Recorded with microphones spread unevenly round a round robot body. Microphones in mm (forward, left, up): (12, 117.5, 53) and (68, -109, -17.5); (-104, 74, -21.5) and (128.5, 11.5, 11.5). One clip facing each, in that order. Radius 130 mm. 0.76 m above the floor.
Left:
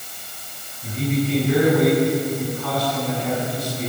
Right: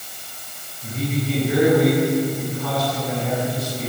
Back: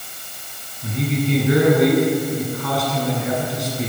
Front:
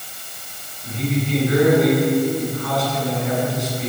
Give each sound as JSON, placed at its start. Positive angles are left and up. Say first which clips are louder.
{"t": 0.8, "sound": "a man speaking", "louder": "left 2 dB, back 1 dB", "azimuth_deg": -165, "distance_m": 9.0}